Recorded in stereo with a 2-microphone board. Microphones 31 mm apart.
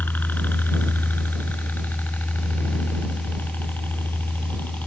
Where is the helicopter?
70° left (ahead or behind); by 4.9 s 80° left.